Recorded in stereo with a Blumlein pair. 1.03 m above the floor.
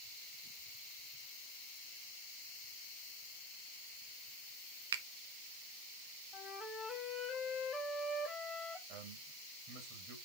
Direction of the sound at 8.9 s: 40° right.